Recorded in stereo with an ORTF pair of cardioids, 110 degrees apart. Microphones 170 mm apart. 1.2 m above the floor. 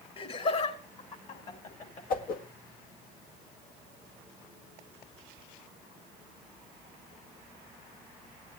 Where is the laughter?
35° left, 7 m; by 2.0 s 45° left, 5.5 m.